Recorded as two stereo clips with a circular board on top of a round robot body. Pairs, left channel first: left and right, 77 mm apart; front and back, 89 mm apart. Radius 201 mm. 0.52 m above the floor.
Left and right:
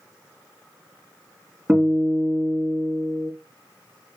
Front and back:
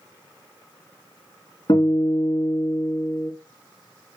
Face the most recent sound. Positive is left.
turn(degrees=-25)